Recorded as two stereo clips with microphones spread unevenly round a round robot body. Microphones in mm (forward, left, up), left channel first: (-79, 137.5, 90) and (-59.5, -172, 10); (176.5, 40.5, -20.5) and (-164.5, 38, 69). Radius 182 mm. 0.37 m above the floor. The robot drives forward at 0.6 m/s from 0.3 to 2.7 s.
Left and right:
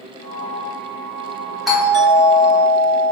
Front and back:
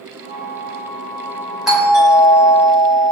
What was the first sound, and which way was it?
A doorbell, 45° right.